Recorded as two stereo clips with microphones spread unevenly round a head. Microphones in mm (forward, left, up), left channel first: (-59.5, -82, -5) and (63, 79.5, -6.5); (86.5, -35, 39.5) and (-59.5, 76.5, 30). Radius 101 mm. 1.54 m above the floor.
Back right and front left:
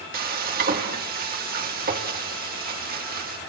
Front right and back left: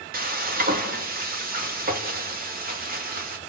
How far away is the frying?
About 2.5 m.